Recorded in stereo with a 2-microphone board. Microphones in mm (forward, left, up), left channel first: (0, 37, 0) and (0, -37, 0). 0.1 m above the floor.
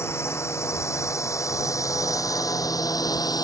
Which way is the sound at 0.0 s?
35° left (ahead or behind).